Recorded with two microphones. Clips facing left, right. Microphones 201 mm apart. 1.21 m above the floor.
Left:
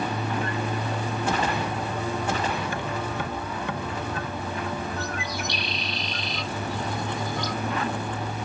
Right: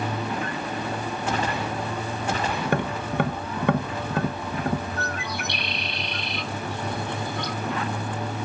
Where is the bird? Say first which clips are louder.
Even; 60° right (ahead or behind), 1.2 m.